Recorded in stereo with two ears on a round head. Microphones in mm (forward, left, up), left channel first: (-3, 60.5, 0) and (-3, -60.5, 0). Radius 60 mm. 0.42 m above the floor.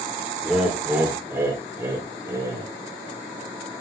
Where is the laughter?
5° right (ahead or behind), 1.6 m; by 2.7 s 25° right (ahead or behind), 2 m.